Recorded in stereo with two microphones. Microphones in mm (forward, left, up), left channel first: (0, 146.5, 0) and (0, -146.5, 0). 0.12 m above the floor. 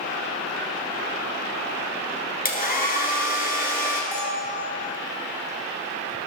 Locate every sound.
2.5 s a hair dryer: 30° left (ahead or behind), 1.7 m
4.1 s a bell: 5° left (ahead or behind), 3 m